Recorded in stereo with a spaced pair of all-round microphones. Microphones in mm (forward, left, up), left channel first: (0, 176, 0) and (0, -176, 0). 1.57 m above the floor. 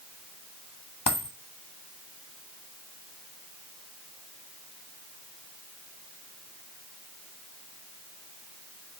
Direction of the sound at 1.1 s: 55° left (ahead or behind).